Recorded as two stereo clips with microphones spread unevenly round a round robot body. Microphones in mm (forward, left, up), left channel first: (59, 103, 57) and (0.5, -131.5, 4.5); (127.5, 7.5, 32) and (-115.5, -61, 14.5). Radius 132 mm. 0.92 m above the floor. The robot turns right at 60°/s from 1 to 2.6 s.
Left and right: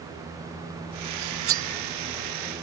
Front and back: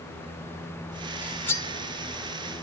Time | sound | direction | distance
1.2 | cutlery clinking | 85° right | ?